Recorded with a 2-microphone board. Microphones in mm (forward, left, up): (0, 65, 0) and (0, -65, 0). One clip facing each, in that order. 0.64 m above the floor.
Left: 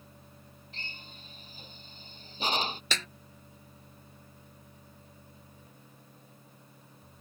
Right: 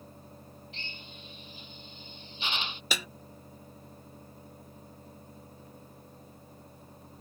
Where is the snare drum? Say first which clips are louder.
Right 1 dB; 10° right (ahead or behind).